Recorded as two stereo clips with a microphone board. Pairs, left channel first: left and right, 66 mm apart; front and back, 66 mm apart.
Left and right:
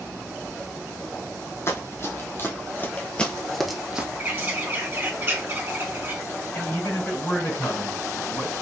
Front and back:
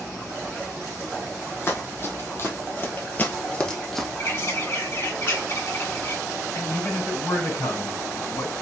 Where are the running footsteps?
45° left, 2 m; by 4.1 s 85° right, 0.9 m.